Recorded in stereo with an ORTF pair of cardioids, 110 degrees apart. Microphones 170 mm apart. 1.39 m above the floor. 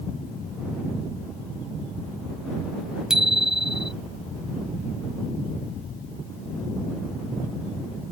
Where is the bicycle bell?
5° right.